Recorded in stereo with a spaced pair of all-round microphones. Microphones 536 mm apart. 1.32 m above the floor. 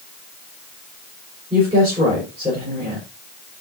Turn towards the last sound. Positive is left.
turn(degrees=-15)  # may be behind; listen again after turning